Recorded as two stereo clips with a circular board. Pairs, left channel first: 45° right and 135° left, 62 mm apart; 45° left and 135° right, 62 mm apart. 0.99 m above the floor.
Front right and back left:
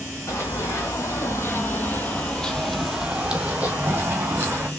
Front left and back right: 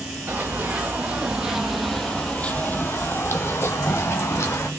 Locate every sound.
0.3 s running footsteps: 75° right, 2 m; by 4.7 s 80° left, 2.5 m